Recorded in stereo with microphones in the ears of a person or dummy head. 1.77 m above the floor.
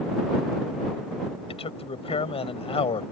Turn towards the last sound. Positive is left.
turn(degrees=30)  # may be behind; listen again after turning